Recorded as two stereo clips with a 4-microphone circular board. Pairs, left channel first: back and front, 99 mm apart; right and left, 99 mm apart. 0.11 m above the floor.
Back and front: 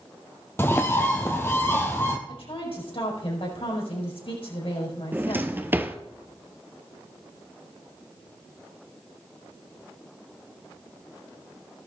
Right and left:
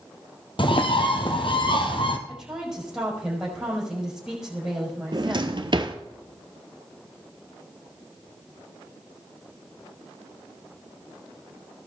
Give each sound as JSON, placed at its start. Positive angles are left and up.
{"t": 0.6, "sound": "a bird", "azimuth_deg": -115, "distance_m": 1.3}
{"t": 2.3, "sound": "a woman speaking", "azimuth_deg": 175, "distance_m": 5.5}
{"t": 5.1, "sound": "a drawer", "azimuth_deg": 65, "distance_m": 0.9}